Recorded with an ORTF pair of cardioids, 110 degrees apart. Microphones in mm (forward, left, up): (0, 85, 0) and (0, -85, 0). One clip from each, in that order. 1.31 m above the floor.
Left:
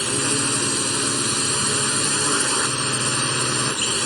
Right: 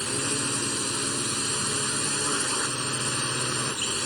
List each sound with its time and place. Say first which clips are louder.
0.0 s a drone: left 6 dB; 40° left